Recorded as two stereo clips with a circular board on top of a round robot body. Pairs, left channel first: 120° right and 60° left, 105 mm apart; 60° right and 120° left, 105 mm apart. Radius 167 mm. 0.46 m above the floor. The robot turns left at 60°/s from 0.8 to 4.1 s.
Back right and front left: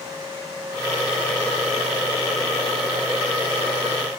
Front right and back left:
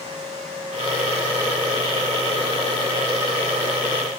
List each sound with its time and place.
Only background noise.